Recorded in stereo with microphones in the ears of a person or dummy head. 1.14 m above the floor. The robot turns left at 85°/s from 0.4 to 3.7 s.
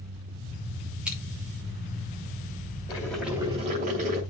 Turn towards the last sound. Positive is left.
turn(degrees=-45)